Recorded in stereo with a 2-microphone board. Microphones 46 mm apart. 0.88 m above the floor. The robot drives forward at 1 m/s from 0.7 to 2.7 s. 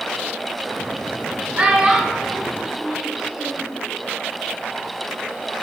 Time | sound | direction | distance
1.6 | a child speaking | 30° right (ahead or behind) | 1.8 m